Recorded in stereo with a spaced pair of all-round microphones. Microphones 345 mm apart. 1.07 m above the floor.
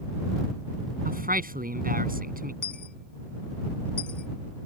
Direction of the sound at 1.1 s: 25° right (ahead or behind).